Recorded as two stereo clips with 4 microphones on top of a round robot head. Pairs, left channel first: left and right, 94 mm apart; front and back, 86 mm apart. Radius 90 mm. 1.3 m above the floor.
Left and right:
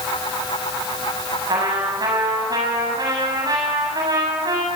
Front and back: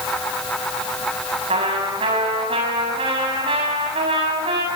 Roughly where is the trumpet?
Behind right.